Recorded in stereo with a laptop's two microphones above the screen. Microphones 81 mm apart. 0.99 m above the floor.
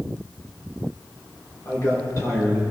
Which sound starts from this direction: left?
A man speaking, at 1.6 s.